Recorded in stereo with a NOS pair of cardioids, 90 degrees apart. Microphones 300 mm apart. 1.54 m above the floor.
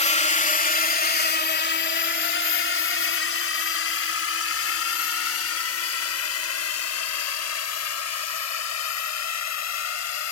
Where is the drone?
20° left; by 10.3 s 60° left.